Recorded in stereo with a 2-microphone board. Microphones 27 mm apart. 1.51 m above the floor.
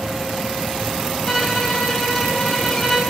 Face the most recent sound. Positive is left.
turn(degrees=25)  # may be behind; listen again after turning